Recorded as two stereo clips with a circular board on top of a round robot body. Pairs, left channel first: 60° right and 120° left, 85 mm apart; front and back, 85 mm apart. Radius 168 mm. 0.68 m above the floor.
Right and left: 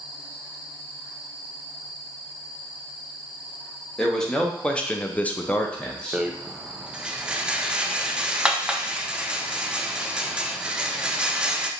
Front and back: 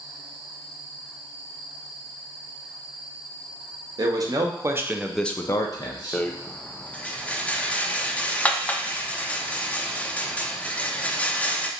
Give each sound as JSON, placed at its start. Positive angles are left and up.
{"t": 4.0, "sound": "a man speaking", "azimuth_deg": -145, "distance_m": 0.9}
{"t": 6.1, "sound": "a rattle", "azimuth_deg": 55, "distance_m": 0.5}